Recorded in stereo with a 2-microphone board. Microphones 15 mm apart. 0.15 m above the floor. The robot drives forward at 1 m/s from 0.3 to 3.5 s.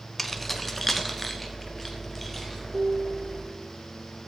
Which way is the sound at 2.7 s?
50° right (ahead or behind).